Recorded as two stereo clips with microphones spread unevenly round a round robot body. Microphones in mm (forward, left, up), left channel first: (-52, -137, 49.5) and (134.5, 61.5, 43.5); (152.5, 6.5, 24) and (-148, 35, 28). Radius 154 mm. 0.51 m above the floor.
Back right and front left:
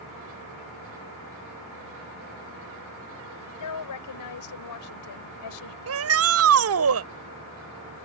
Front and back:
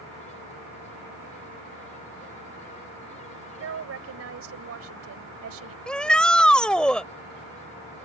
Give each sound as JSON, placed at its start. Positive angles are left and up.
{"t": 3.6, "sound": "a woman speaking", "azimuth_deg": -140}
{"t": 5.9, "sound": "a shout", "azimuth_deg": 80}